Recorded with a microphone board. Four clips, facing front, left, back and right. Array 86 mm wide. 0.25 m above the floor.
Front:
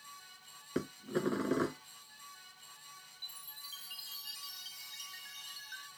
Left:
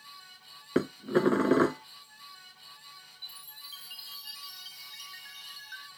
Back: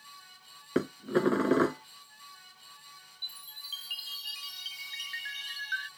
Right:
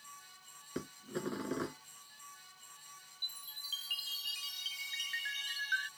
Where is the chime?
140° right.